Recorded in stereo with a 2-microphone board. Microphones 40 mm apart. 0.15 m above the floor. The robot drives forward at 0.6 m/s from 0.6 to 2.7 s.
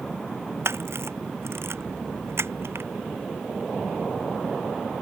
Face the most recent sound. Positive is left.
turn(degrees=-80)